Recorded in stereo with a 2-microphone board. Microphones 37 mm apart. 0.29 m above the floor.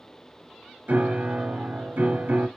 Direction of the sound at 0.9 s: 60° right (ahead or behind).